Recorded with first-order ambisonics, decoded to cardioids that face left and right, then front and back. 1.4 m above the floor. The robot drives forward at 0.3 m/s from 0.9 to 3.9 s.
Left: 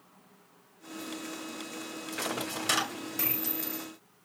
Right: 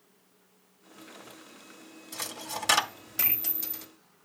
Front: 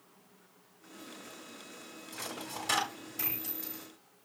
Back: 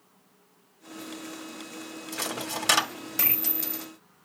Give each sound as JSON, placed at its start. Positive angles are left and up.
{"t": 2.1, "sound": "a dropped coin", "azimuth_deg": -165, "distance_m": 1.4}